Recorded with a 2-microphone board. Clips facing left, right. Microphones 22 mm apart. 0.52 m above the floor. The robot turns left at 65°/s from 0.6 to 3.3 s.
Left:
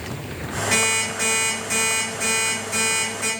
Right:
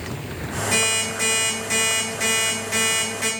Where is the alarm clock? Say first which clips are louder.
Left 1 dB; 55° left, 1.5 m; by 3.3 s 110° right, 1.5 m.